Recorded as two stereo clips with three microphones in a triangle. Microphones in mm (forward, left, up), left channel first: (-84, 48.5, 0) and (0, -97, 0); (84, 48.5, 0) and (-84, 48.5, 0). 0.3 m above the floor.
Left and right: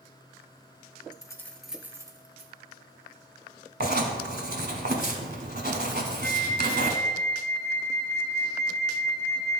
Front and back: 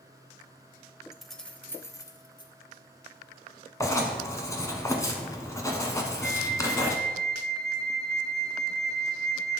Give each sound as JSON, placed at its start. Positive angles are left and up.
{"t": 1.1, "sound": "keys jangling", "azimuth_deg": 95, "distance_m": 0.8}
{"t": 3.8, "sound": "writing", "azimuth_deg": -70, "distance_m": 1.1}
{"t": 6.2, "sound": "a flute", "azimuth_deg": -85, "distance_m": 1.2}